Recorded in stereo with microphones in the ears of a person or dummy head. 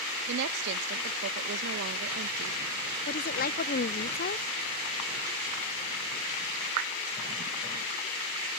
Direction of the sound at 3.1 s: 45° left (ahead or behind).